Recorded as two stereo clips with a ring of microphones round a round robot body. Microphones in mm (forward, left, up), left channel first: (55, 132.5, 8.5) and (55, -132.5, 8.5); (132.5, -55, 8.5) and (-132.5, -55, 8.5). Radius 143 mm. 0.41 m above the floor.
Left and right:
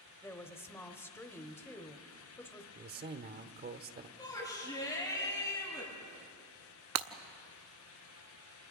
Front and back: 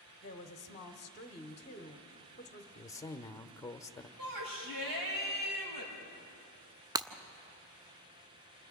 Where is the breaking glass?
105° right, 0.8 m.